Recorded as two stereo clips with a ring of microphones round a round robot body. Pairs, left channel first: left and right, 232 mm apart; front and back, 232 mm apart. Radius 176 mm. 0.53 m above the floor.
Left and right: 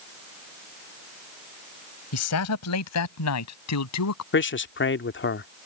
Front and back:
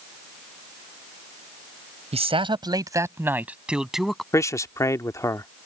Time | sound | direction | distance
2.1 | a man speaking | 115° left | ?
4.3 | a man speaking | 75° left | ?